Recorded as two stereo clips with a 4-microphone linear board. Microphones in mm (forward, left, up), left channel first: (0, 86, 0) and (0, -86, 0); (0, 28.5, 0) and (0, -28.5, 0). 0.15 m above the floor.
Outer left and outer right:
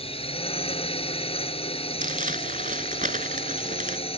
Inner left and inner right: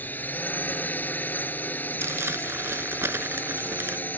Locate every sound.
0.0 s a drone: 35° left (ahead or behind)
2.0 s crumpling: 50° right (ahead or behind)